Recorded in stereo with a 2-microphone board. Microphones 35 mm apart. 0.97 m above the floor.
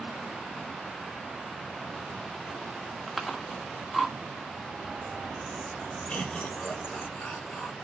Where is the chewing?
5° left (ahead or behind), 2.0 m.